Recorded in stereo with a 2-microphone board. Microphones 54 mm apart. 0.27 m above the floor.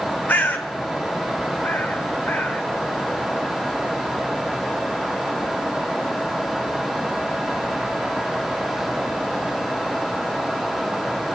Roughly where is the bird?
Left.